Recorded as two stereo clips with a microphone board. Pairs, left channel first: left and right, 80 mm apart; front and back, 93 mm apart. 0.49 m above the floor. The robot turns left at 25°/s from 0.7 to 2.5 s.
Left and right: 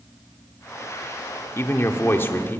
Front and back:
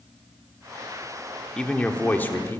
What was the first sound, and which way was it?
A man speaking, 70° left.